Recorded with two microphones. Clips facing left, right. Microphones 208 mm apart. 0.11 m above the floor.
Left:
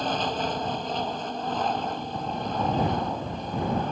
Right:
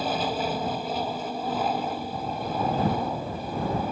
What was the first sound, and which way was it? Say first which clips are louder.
An aircraft: right 1 dB; 10° right (ahead or behind).